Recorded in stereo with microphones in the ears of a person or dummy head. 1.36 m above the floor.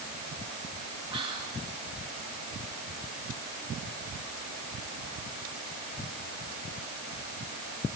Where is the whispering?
35° right (ahead or behind), 2.5 m.